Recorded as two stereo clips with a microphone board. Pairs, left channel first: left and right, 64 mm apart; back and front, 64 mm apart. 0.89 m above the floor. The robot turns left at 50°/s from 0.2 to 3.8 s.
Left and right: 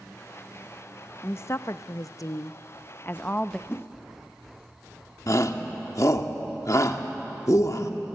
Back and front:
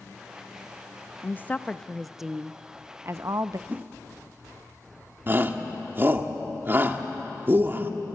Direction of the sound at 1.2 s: 135° left.